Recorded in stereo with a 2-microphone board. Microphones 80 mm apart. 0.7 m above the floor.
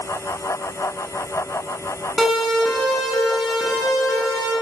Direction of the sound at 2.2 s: 5° left (ahead or behind).